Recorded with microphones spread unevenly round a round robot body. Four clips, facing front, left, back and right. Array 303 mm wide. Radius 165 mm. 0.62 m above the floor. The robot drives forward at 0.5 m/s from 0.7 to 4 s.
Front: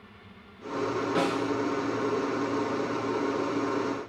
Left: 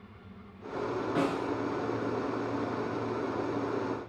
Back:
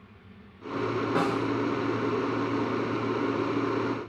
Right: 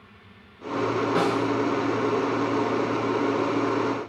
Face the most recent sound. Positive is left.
turn(degrees=-160)